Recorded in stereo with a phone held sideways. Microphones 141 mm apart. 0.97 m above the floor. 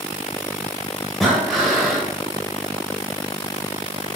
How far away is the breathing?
About 2 m.